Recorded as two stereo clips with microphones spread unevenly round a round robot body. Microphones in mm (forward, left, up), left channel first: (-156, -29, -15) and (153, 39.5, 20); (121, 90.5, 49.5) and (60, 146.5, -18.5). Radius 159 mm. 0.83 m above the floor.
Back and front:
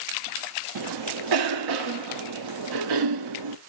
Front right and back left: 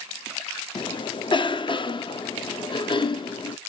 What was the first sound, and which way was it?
A cough, 20° left.